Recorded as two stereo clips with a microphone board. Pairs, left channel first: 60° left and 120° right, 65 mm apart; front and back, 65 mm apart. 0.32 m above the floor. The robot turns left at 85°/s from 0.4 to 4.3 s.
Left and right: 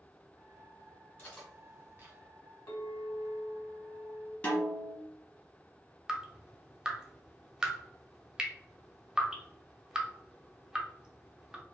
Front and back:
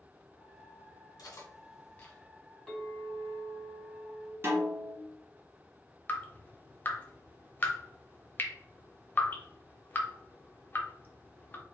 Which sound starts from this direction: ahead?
Cutlery clinking, at 1.2 s.